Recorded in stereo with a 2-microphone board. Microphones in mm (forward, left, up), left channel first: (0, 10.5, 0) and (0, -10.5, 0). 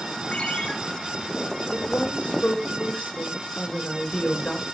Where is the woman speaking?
60° left (ahead or behind), 5 m.